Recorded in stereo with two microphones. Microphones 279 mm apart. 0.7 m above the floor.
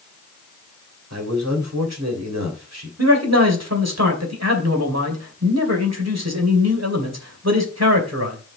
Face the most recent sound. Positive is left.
turn(degrees=-65)  # may be behind; listen again after turning